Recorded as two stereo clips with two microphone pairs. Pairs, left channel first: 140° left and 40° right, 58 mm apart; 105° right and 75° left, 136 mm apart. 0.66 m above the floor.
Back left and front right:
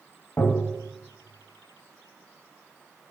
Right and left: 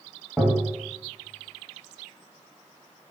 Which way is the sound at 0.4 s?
160° left.